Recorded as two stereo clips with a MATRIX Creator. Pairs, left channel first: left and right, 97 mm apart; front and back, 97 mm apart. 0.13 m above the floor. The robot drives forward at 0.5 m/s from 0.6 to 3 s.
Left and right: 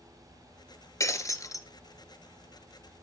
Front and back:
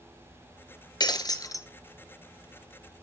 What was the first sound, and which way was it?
Breaking glass, 35° left.